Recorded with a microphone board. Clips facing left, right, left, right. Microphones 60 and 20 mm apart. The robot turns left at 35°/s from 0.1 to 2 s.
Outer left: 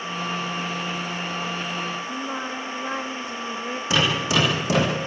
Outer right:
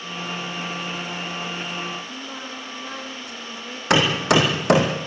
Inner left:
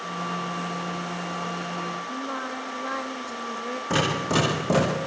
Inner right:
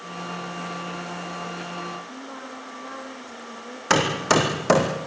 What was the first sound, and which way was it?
Singing, 35° left (ahead or behind).